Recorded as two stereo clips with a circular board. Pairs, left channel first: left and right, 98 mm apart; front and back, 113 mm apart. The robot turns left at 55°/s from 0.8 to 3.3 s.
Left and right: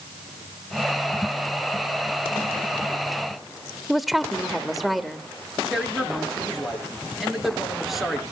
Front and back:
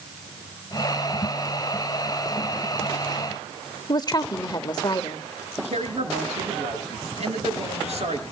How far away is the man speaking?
About 5 m.